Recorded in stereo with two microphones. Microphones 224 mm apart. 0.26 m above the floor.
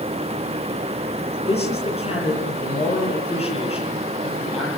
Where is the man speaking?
25° left (ahead or behind), 8 m.